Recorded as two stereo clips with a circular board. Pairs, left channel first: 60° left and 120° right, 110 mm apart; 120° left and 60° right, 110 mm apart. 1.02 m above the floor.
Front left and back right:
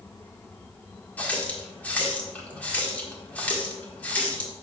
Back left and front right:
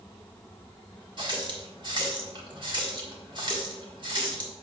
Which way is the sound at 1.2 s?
15° right.